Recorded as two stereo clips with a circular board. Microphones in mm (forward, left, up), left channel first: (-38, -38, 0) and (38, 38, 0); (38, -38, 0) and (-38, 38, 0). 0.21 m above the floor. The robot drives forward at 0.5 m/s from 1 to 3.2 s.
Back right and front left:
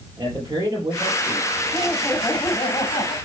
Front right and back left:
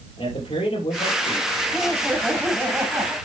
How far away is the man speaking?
About 6 m.